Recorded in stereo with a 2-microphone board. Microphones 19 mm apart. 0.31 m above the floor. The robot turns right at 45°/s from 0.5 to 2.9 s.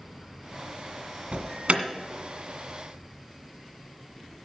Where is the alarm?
65° right (ahead or behind), 1.9 m; by 1.8 s 70° right (ahead or behind), 1.9 m.